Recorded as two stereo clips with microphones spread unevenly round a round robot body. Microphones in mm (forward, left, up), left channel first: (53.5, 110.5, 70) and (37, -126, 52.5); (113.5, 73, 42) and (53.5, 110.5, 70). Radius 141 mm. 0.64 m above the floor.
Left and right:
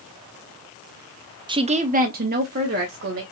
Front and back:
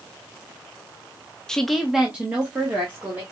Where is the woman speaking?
45° right, 0.6 m; by 3.2 s 140° right, 1.1 m.